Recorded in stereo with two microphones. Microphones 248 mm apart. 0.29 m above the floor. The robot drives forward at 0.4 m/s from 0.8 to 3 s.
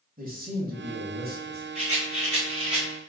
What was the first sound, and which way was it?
A man speaking, 35° right (ahead or behind).